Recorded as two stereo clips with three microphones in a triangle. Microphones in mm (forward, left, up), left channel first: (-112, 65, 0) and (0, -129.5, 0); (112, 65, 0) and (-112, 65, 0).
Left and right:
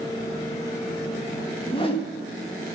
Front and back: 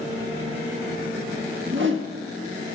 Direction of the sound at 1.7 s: 175° right.